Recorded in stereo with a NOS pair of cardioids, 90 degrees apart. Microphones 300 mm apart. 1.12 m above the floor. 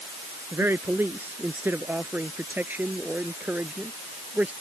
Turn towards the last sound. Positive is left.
turn(degrees=-5)